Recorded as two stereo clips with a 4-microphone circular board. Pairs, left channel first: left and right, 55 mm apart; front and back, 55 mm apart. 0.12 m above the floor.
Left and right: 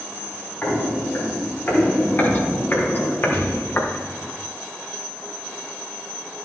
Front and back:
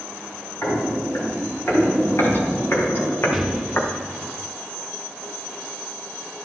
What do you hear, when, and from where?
0.6 s footsteps: 35° left, 4.5 m; by 4.3 s 50° left, 1.9 m
3.3 s an explosion: 105° left, 1.2 m